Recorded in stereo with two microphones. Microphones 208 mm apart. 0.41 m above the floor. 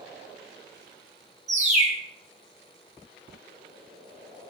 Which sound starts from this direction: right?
A bird, at 1.5 s.